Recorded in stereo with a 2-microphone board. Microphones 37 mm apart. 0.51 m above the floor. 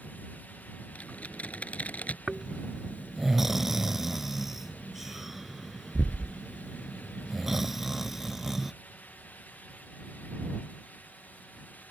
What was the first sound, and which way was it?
Typing on a keyboard, 40° left (ahead or behind).